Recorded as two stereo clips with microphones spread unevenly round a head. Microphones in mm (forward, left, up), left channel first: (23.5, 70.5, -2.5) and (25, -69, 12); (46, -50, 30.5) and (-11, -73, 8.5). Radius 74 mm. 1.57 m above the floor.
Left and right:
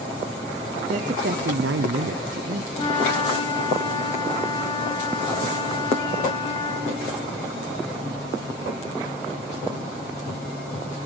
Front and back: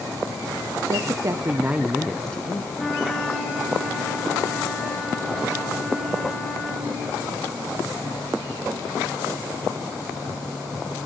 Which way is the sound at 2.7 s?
70° left.